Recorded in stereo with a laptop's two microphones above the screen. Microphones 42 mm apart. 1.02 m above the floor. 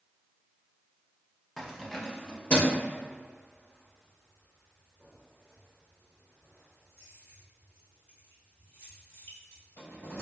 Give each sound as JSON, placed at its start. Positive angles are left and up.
{"t": 1.6, "sound": "keys jangling", "side_deg": 5, "distance_m": 1.3}